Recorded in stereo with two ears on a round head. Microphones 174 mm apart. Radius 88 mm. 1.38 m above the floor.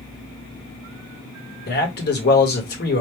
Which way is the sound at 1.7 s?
55° left (ahead or behind).